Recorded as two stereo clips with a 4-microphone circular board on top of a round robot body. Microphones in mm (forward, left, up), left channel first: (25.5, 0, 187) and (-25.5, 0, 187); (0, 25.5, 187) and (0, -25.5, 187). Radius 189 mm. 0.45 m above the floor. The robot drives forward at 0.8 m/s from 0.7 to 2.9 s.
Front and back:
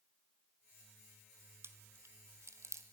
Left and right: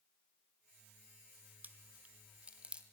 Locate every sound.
1.6 s chewing: 145° right, 1.5 m; by 2.8 s 160° right, 2.5 m